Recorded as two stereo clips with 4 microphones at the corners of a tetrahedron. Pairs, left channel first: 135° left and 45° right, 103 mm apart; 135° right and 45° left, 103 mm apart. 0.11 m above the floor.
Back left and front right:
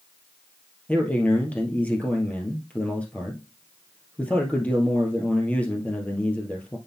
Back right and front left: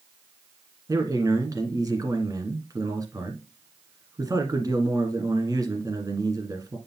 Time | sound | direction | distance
0.9 | a man speaking | 65° left | 1.8 m